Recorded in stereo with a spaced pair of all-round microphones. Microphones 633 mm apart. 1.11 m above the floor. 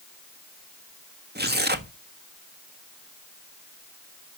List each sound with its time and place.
1.4 s tearing paper: 15° right (ahead or behind), 1.3 m